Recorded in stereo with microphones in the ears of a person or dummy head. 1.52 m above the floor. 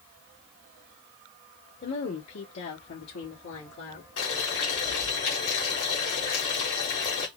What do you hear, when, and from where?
1.8 s a woman speaking: 45° left (ahead or behind), 0.9 m; by 4.1 s 70° left (ahead or behind), 1.4 m
4.2 s boiling: 65° left (ahead or behind), 1.2 m